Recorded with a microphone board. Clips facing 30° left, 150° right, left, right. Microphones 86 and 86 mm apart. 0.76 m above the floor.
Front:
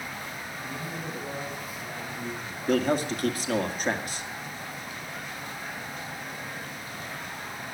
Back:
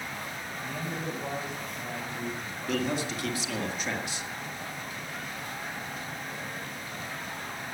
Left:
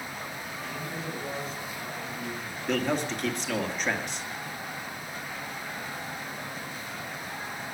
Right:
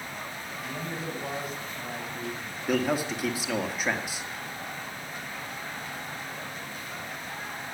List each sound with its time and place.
0.6 s a man speaking: 135° right, 5.5 m; by 2.6 s 115° right, 5 m
2.7 s a man speaking: 5° right, 2.0 m